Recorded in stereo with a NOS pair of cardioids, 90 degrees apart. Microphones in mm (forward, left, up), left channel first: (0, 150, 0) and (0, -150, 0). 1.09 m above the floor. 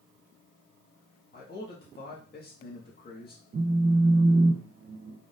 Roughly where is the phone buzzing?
Ahead right.